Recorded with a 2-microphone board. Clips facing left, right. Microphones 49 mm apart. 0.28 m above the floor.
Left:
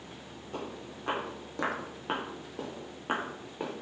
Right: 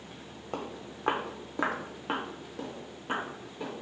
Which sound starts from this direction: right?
Footsteps, at 0.5 s.